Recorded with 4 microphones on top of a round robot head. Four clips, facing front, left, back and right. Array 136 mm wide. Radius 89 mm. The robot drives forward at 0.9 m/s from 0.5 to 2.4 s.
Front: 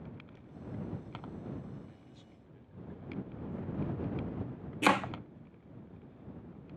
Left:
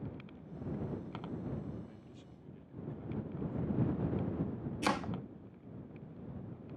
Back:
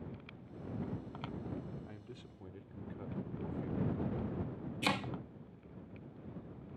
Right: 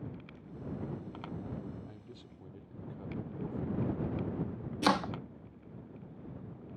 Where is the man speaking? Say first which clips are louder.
Right 2 dB, back 3 dB; 145° right; by 4.0 s 150° right.